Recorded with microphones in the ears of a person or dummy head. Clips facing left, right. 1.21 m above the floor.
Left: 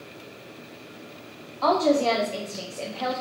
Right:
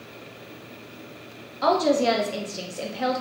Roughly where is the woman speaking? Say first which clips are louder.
Even; centre.